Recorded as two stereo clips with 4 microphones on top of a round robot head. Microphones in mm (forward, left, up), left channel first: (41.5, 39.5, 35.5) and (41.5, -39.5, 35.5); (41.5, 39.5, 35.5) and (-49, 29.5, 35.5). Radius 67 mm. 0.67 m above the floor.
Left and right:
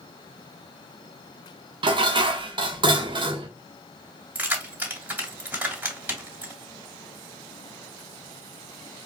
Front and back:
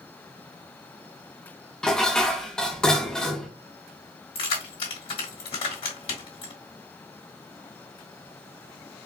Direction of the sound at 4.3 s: 25° right.